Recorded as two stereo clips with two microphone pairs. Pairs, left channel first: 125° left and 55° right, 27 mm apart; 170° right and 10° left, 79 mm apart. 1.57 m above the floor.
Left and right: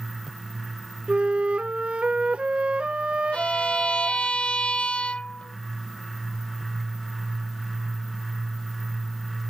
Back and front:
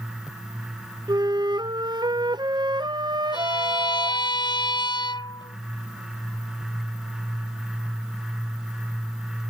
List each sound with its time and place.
1.1 s a flute: 10° right
3.3 s a violin: 170° left